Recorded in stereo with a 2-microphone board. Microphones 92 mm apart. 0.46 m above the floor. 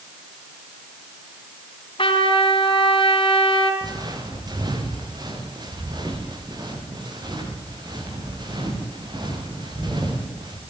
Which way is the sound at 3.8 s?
45° right (ahead or behind).